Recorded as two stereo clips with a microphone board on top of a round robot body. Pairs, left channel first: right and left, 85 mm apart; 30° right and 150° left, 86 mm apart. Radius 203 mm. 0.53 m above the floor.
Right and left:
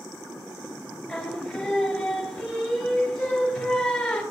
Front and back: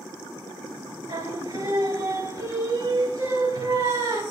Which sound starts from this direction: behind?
Singing, at 1.1 s.